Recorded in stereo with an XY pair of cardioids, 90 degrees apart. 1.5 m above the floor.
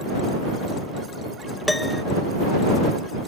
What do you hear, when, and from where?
1.7 s a piano: 10° left